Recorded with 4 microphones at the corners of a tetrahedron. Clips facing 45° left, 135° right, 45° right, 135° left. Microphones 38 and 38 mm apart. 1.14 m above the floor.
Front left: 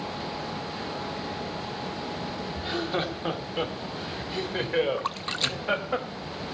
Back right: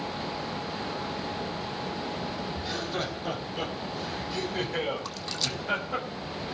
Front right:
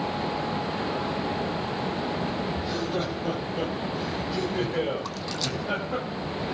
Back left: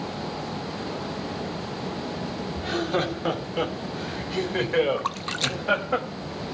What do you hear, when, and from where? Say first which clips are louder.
2.6 s laughter: front left 6 dB, back left 3 dB; 105° left, 2.5 m; by 6.0 s 100° left, 5 m
5.0 s a splash: front left 4 dB, back left 3 dB; 95° left, 0.5 m